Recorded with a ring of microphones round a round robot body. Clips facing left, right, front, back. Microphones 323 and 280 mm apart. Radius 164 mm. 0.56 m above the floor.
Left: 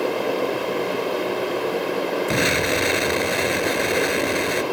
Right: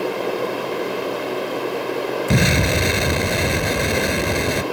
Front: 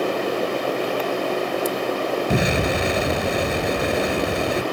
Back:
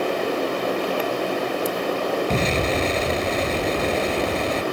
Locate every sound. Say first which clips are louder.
2.3 s an explosion: right 2 dB, front 1 dB; 80° right